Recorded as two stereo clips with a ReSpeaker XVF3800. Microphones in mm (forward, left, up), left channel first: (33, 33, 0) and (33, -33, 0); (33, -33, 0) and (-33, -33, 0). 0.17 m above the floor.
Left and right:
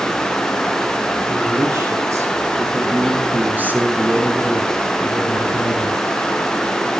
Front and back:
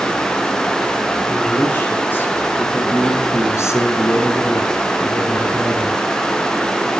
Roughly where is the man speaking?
Ahead right.